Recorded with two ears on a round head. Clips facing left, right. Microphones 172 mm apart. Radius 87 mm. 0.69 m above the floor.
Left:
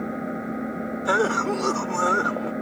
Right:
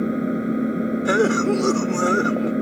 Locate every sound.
0.0 s an engine running: 40° right (ahead or behind)
1.1 s a cough: 35° right (ahead or behind)